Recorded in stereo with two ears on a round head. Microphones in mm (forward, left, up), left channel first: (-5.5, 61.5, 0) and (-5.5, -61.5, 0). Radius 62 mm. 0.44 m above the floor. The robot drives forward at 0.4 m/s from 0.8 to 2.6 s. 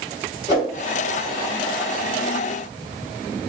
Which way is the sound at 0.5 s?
50° left (ahead or behind).